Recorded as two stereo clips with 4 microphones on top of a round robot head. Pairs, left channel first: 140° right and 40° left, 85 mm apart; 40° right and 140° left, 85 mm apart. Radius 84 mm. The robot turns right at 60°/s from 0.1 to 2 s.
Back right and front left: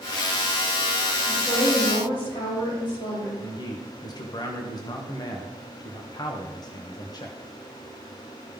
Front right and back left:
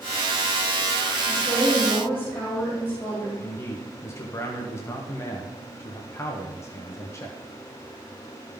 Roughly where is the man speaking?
Right.